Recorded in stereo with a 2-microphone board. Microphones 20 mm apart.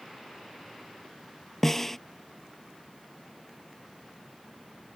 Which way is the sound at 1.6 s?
15° left (ahead or behind).